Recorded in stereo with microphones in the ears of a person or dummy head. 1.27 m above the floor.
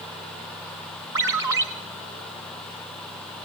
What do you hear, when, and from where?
1.1 s a ringtone: 15° right (ahead or behind), 1.1 m